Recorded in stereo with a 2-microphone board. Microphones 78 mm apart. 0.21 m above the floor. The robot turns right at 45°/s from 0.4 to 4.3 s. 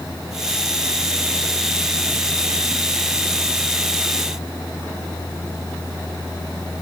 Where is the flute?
No flute in this recording.